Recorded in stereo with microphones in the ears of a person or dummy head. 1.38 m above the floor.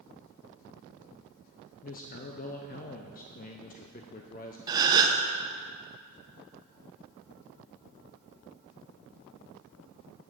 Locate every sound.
1.8 s a man speaking: 35° left (ahead or behind), 0.6 m
4.7 s a gasp: 25° right (ahead or behind), 0.9 m